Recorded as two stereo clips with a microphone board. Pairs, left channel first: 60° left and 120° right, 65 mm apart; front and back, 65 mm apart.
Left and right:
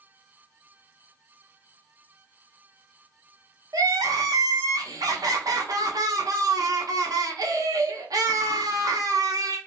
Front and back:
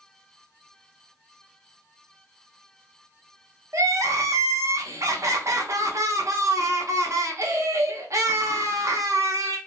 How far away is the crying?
About 0.6 m.